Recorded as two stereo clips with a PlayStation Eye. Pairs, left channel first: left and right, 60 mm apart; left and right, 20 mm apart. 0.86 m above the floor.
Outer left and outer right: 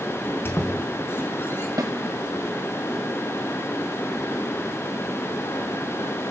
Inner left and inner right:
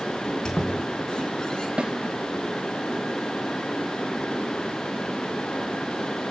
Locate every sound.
0.2 s a squeak: 35° left (ahead or behind), 4.5 m
1.8 s a snare drum: 75° right (ahead or behind), 2 m